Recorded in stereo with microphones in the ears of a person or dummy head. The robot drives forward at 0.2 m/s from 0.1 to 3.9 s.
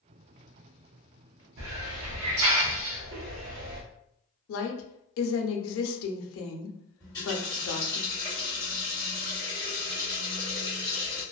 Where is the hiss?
75° right (ahead or behind), 0.7 m; by 3.8 s 60° right (ahead or behind), 0.8 m.